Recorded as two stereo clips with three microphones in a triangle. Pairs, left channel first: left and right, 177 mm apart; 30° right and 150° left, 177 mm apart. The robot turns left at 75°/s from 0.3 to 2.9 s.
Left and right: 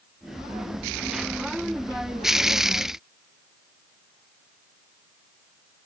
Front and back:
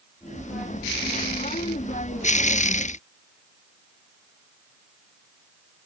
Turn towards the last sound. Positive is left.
No sound to turn to.